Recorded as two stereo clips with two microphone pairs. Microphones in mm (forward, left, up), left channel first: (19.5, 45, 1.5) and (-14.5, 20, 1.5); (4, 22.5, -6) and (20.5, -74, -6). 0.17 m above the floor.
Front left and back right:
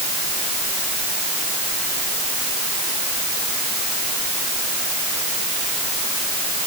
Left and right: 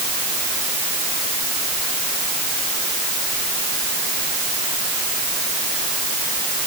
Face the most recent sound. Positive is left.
No sound to turn to.